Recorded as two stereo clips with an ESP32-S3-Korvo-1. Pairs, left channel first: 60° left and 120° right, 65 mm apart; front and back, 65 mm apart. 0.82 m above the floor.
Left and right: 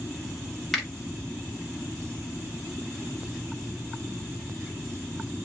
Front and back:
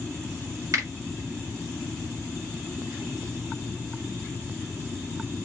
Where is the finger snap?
145° left, 1.3 m.